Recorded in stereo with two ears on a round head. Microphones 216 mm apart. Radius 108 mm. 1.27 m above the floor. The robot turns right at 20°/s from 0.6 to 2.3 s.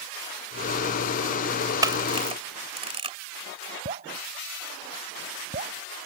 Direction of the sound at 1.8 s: 15° right (ahead or behind).